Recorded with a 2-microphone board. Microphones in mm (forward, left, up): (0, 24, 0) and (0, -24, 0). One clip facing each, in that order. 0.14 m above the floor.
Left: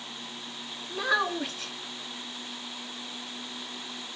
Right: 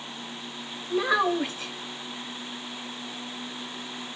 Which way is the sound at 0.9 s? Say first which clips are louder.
Right 4 dB; 10° right (ahead or behind).